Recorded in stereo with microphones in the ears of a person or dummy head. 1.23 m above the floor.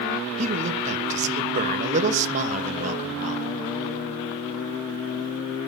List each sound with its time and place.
0.4 s a man speaking: 40° right (ahead or behind), 1.4 m